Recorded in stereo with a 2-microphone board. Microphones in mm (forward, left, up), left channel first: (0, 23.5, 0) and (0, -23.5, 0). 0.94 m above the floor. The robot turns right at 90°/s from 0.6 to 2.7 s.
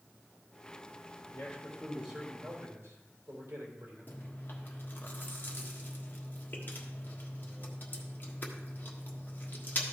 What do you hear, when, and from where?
1.3 s a man speaking: 125° left, 3.5 m; by 4.3 s 110° right, 3.5 m
4.1 s chewing: 40° left (ahead or behind), 1.3 m